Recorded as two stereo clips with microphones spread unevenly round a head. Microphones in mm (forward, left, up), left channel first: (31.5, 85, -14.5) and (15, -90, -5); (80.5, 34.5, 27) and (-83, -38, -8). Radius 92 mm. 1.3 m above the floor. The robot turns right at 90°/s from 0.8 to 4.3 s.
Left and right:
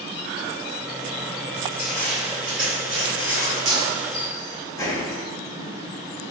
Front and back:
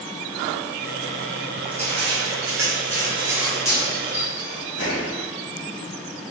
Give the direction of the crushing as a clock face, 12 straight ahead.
7 o'clock.